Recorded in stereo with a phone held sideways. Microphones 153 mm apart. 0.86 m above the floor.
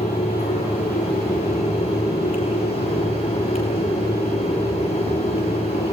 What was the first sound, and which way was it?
A fan, 40° left (ahead or behind).